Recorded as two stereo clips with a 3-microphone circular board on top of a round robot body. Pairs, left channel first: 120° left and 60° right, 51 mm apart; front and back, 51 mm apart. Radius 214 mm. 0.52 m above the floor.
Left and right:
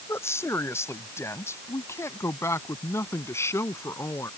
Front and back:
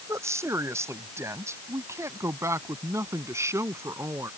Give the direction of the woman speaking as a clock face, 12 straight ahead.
7 o'clock.